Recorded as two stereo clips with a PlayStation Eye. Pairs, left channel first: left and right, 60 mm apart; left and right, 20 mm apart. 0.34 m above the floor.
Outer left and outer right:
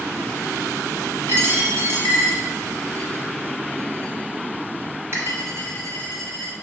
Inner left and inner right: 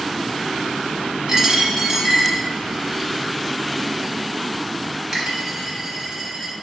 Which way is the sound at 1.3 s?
45° right (ahead or behind).